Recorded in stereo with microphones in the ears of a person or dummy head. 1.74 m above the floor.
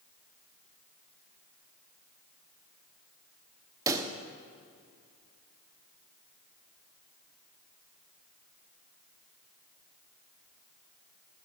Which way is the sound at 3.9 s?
15° right (ahead or behind).